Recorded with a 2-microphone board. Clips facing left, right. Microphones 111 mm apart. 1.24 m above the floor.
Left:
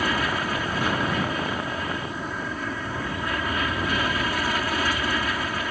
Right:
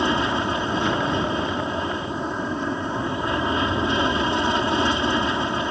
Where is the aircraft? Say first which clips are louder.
Right 4 dB; 25° right (ahead or behind).